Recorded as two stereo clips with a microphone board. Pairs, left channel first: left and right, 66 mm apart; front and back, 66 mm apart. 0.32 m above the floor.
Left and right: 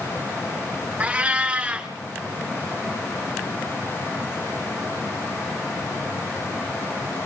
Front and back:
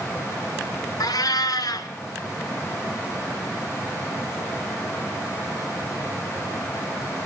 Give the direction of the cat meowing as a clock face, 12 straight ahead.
1 o'clock.